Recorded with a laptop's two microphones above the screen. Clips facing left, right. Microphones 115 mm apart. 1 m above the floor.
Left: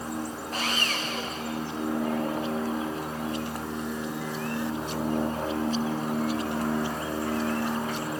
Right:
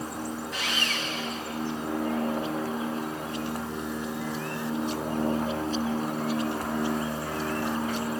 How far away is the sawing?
About 1.6 m.